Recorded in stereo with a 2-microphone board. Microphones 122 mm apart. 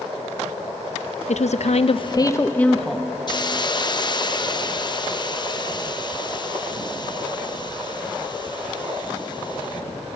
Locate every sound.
1.3 s a woman speaking: 65° left (ahead or behind), 0.8 m; by 3.1 s centre (ahead or behind), 1.2 m
3.3 s a hiss: 35° left (ahead or behind), 0.7 m